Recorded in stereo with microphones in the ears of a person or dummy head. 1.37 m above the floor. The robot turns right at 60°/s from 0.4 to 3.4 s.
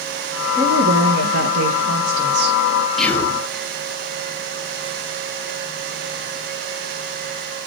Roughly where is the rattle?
No rattle in this recording.